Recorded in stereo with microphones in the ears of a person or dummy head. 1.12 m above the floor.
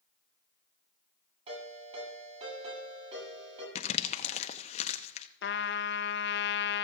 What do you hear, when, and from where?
1.5 s a ringtone: 40° right (ahead or behind), 8 m
3.8 s crumpling: 25° left (ahead or behind), 0.7 m
5.4 s a trumpet: 50° left (ahead or behind), 0.6 m